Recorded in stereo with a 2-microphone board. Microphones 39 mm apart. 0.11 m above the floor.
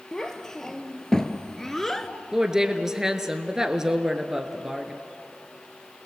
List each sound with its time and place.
0.1 s a child speaking: 15° left (ahead or behind), 2.0 m; by 2.1 s 10° left (ahead or behind), 1.0 m
2.3 s a woman speaking: 15° right (ahead or behind), 1.5 m